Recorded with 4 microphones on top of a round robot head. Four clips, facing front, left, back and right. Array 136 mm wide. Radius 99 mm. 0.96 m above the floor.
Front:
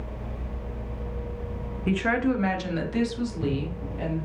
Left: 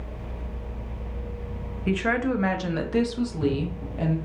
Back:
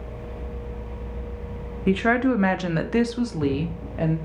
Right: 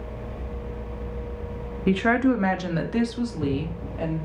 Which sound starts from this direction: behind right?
A woman speaking, at 1.9 s.